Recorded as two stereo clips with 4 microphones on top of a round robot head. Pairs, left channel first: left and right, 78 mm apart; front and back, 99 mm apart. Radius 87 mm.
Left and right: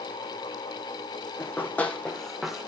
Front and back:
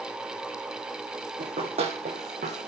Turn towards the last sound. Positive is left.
turn(degrees=-170)